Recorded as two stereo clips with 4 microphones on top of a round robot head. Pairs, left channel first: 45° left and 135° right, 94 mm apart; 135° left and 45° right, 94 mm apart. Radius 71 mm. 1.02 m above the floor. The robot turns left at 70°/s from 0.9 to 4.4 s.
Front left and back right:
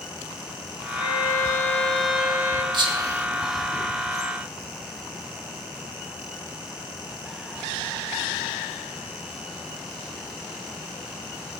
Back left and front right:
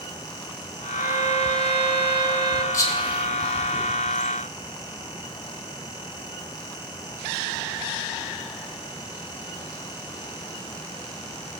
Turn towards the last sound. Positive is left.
turn(degrees=80)